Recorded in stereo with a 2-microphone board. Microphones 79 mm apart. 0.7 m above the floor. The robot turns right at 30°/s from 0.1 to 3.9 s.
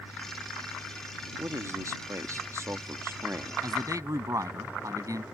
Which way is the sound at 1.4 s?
110° right.